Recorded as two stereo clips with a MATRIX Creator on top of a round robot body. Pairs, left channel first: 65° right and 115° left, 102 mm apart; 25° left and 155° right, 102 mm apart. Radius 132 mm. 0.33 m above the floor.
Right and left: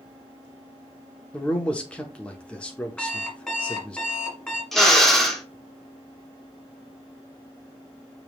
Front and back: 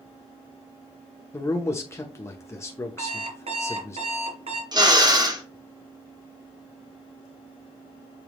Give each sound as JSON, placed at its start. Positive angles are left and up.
{"t": 1.3, "sound": "a man speaking", "azimuth_deg": 0, "distance_m": 1.0}
{"t": 3.0, "sound": "an alarm clock", "azimuth_deg": -150, "distance_m": 1.9}
{"t": 4.7, "sound": "a drill", "azimuth_deg": -155, "distance_m": 1.8}